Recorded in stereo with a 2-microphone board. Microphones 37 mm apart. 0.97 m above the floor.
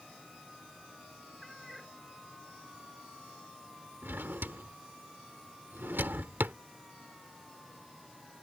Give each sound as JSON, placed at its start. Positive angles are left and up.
{"t": 1.4, "sound": "a cat meowing", "side_deg": 5}
{"t": 4.0, "sound": "a drawer", "side_deg": -70}